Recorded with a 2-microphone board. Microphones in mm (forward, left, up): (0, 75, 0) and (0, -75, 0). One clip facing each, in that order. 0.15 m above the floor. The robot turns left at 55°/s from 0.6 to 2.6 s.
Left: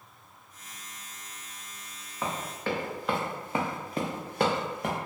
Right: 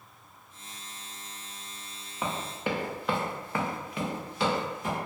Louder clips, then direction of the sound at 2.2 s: Even; 5° right (ahead or behind).